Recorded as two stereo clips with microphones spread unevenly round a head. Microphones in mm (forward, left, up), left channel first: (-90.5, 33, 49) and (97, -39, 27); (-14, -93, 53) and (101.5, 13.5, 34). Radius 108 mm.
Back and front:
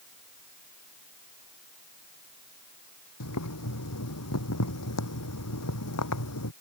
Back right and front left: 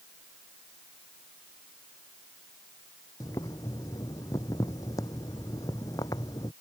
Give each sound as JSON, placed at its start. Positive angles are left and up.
{"t": 3.2, "sound": "boiling", "azimuth_deg": 150}